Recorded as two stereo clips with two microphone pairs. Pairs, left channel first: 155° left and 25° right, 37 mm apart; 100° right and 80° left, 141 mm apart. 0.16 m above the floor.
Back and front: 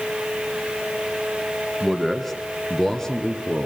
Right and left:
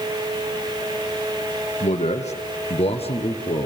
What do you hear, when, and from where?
1.8 s a man speaking: 115° right, 3 m; by 3.7 s 145° right, 2.5 m